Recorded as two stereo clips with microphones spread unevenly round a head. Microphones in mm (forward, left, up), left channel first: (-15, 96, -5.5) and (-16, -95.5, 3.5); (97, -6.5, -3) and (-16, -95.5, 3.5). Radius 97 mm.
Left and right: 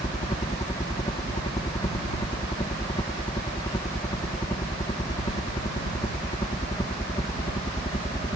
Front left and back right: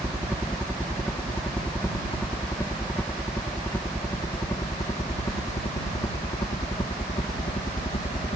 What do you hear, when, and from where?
0.0 s a helicopter: 120° left; by 8.4 s 40° left